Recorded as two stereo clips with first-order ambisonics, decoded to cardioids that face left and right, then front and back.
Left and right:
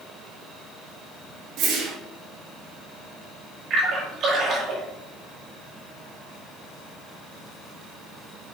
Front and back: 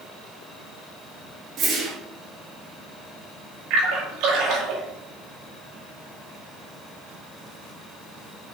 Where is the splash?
150° right, 6 m.